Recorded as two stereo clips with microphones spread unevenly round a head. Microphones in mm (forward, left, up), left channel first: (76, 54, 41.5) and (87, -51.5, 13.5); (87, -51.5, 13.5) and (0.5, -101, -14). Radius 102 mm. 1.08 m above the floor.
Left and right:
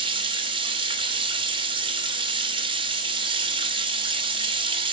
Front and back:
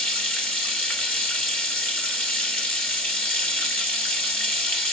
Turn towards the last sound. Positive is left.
turn(degrees=-45)